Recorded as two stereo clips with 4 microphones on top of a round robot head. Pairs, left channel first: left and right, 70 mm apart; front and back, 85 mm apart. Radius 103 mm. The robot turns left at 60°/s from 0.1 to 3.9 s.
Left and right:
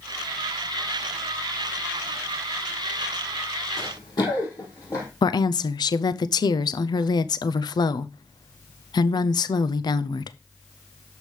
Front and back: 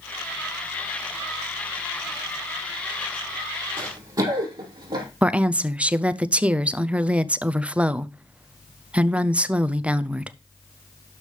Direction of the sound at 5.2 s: 105° left.